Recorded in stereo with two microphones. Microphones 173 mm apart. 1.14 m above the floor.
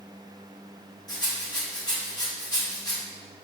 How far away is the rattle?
About 1.5 m.